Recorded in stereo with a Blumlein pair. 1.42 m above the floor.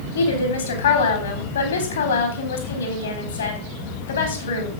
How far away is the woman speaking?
About 4 m.